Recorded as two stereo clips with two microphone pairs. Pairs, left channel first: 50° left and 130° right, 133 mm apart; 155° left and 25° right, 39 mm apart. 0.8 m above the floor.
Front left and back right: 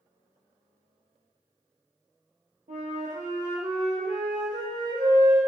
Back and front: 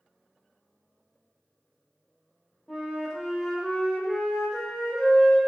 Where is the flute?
120° right, 0.8 m.